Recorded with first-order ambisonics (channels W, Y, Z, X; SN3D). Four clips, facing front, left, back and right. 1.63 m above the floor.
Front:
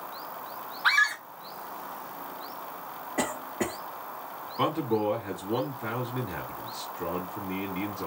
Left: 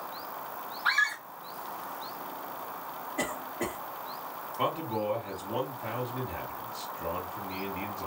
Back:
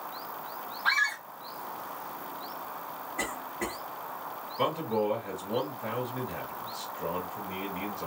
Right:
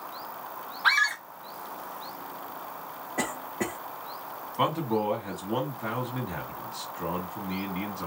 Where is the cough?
35° right, 1.1 m.